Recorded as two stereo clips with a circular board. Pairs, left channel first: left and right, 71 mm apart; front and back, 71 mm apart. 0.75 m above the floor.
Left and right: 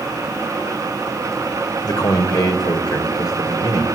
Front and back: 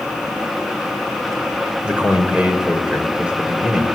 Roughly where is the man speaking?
Left.